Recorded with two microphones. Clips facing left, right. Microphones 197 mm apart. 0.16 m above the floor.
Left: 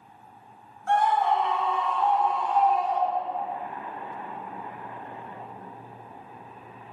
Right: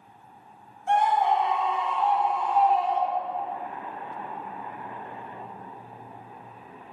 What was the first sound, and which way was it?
A scream, 20° right (ahead or behind).